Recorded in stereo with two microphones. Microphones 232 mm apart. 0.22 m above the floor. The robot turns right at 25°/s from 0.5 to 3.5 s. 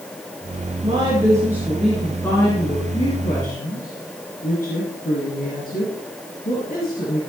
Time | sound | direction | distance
0.8 | a woman speaking | 25° right | 2.5 m